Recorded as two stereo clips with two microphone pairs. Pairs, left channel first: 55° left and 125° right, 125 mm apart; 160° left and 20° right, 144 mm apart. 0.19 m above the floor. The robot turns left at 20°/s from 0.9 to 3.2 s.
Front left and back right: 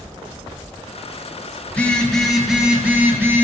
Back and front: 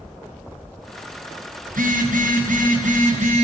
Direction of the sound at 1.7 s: 20° right.